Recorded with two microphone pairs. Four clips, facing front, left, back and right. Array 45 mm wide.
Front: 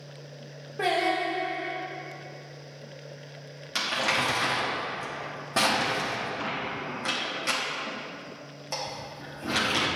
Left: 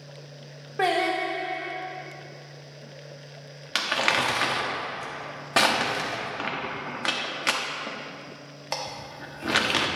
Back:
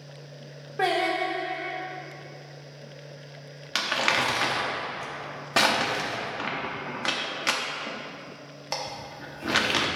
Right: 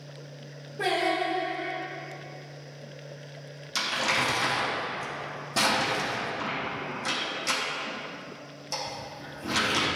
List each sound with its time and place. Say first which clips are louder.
0.8 s singing: left 2 dB, back 1 dB; 120° left, 2.5 m
3.8 s crumpling: left 3 dB, back 2 dB; 125° left, 1.3 m